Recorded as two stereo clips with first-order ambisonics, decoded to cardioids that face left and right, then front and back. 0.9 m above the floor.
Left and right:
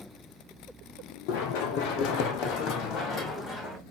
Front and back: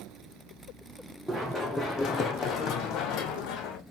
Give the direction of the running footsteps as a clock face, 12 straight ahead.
9 o'clock.